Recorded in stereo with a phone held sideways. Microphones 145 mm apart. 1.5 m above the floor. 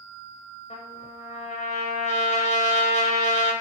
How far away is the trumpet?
About 4.5 m.